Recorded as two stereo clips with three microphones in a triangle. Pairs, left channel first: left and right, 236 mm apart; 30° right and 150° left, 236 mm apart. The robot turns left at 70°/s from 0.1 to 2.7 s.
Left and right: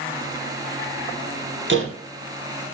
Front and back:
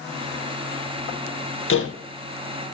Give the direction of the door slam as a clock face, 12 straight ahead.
2 o'clock.